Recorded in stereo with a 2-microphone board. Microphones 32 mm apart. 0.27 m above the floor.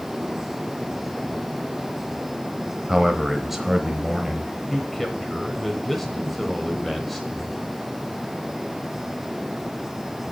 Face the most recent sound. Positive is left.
turn(degrees=5)  # may be behind; listen again after turning